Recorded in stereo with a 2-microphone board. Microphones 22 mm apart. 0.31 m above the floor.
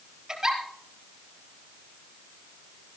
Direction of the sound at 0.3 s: 35° right (ahead or behind).